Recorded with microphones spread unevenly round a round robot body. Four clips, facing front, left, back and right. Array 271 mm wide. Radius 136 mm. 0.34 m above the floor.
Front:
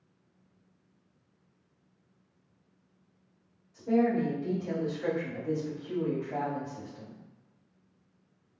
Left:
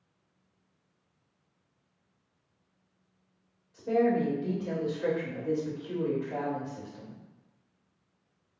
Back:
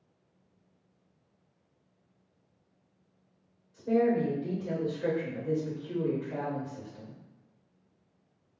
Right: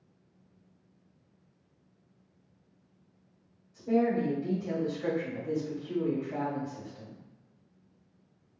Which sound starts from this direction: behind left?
A woman speaking, at 3.7 s.